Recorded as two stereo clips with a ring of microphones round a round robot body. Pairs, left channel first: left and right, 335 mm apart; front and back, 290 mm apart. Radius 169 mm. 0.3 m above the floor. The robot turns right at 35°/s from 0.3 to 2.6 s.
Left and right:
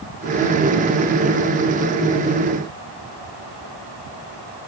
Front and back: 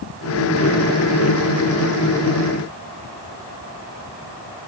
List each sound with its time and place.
Only background noise.